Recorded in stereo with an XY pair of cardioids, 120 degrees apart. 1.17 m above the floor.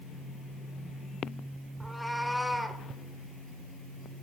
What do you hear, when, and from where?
1.8 s a cat meowing: straight ahead, 1.8 m